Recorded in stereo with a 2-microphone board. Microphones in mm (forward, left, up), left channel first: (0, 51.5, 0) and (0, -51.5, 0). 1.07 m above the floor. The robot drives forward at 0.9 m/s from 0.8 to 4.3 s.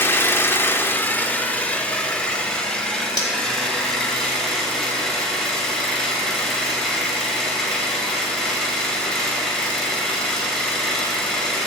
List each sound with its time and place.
0.0 s an engine running: 20° left (ahead or behind), 1.2 m; by 11.7 s 5° left (ahead or behind), 4.5 m
3.2 s cutlery clinking: 35° left (ahead or behind), 1.9 m